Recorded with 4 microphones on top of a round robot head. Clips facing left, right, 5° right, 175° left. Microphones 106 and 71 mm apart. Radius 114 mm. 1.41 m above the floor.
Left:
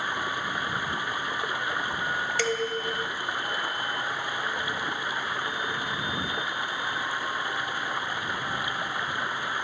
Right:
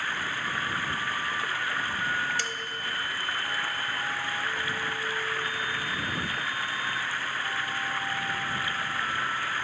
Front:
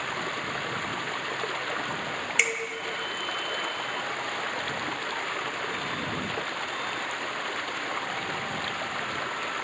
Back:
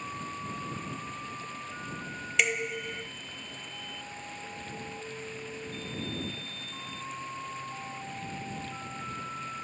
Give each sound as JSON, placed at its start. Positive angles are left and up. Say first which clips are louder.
{"t": 0.0, "sound": "running water", "louder": "left 2 dB, front 6 dB", "azimuth_deg": 15}
{"t": 2.4, "sound": "dishes clattering", "louder": "left 8 dB, back 2 dB", "azimuth_deg": 85}